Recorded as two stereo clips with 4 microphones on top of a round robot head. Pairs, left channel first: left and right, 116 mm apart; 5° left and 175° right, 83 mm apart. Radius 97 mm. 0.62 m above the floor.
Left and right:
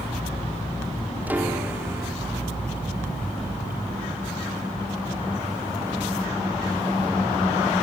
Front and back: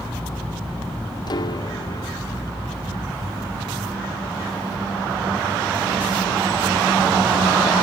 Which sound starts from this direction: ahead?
A piano, at 1.3 s.